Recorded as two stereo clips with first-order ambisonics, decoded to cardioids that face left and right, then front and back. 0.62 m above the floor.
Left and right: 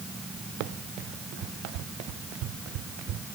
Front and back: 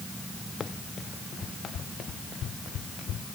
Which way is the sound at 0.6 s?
70° right.